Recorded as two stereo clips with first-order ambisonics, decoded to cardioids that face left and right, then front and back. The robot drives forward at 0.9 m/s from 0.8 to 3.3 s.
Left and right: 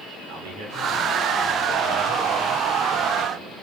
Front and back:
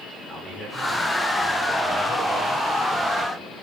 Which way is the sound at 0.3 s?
75° right.